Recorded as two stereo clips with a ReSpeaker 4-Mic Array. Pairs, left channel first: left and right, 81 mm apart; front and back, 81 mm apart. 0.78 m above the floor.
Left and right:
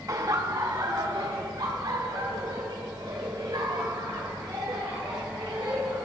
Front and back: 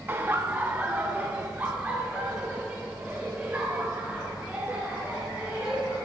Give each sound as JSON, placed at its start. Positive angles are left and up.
{"t": 0.1, "sound": "laughter", "azimuth_deg": -120, "distance_m": 0.7}